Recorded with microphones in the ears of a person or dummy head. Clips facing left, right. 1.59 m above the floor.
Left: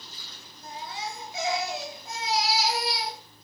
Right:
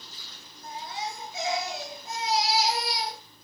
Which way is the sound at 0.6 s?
80° left.